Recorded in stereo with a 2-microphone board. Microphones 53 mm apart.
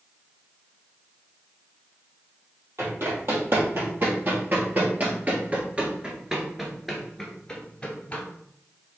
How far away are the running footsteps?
About 2.5 m.